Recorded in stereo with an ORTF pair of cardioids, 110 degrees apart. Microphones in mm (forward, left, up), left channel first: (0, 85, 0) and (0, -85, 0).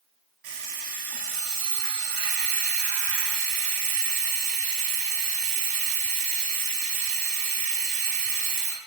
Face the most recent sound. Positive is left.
turn(degrees=-65)